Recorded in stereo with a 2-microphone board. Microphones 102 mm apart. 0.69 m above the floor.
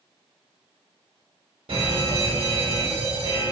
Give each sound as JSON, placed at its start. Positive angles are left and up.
{"t": 1.7, "sound": "an alarm", "side_deg": -65, "distance_m": 3.0}